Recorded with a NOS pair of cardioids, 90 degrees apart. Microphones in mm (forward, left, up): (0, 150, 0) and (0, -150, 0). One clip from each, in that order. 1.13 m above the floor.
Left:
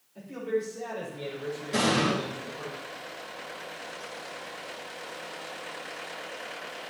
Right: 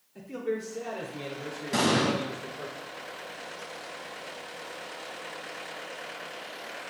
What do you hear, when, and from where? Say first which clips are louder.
0.1 s a man speaking: left 2 dB; 40° right, 4.5 m; by 2.7 s 65° right, 5 m
1.7 s an explosion: even; 45° right, 4 m